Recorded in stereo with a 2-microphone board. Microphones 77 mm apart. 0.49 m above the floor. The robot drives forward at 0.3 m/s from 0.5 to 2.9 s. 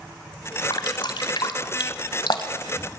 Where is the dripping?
75° left (ahead or behind), 1.4 m.